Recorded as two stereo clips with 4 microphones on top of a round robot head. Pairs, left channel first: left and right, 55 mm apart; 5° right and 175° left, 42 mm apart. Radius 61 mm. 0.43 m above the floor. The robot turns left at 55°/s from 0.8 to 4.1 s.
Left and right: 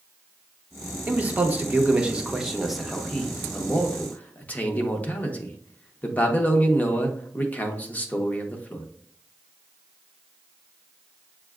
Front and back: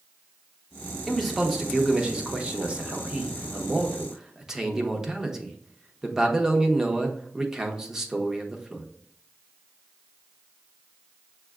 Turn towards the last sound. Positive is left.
turn(degrees=110)